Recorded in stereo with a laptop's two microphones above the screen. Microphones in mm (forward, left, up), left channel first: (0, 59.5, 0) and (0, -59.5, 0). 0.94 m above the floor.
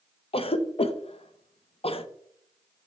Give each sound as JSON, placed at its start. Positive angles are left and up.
{"t": 0.3, "sound": "a cough", "side_deg": 50, "distance_m": 0.5}